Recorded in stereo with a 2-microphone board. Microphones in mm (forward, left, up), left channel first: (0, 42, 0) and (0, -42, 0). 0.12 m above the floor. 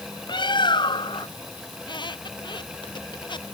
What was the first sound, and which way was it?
A bird, 65° left (ahead or behind).